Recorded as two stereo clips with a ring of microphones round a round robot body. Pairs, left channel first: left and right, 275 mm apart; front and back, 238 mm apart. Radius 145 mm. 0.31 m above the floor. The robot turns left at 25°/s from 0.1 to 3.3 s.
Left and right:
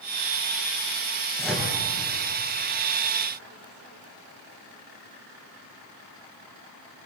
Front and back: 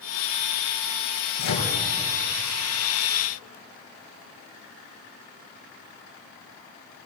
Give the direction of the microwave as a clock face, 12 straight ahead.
12 o'clock.